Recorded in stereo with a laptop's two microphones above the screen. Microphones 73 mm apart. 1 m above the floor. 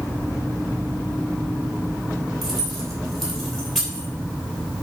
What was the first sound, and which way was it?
Keys jangling, 5° left (ahead or behind).